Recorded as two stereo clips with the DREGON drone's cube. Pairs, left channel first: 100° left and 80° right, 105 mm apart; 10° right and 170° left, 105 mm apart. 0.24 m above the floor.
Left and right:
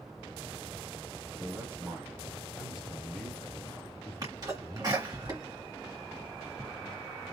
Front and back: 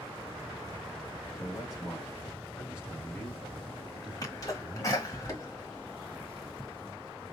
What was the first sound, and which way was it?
A man speaking, 40° right.